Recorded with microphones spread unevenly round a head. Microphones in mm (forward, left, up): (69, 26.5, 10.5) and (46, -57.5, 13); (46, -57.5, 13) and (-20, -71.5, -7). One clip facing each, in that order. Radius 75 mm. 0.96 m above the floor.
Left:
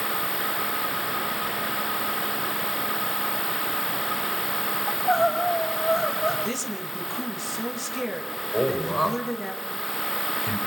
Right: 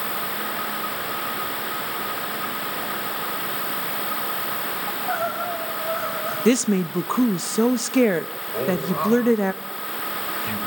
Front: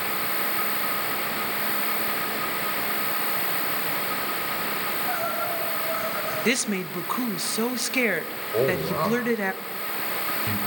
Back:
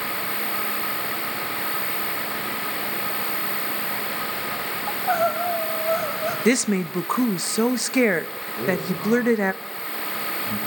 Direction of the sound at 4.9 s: 145° left.